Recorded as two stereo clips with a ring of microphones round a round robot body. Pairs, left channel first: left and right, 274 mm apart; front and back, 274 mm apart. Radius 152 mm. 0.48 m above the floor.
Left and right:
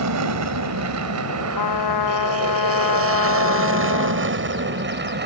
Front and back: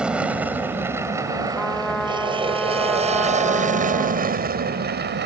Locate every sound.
0.0 s an aircraft: 95° right; by 5.3 s 135° right
1.5 s a trumpet: 90° left